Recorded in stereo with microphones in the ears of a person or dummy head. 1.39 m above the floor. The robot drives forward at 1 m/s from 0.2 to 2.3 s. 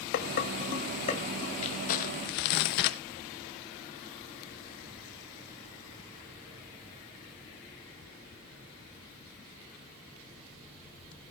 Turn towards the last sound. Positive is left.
turn(degrees=55)  # may be behind; listen again after turning